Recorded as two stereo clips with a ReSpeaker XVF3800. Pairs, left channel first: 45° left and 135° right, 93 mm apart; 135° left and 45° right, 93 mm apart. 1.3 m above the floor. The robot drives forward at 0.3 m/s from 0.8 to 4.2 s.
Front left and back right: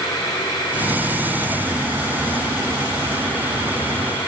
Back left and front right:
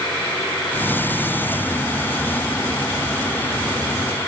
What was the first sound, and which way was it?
Only background noise.